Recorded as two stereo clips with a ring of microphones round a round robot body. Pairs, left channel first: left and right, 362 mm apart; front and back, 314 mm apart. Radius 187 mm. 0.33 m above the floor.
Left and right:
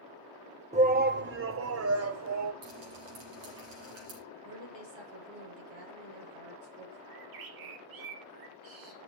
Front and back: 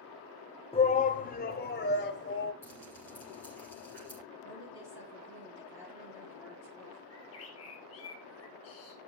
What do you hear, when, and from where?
0.7 s a shout: 45° right, 0.9 m; by 2.5 s 50° right, 1.6 m
2.6 s dripping: 85° right, 8 m
4.4 s a woman speaking: 95° right, 8 m
7.1 s a bird: 55° right, 2.5 m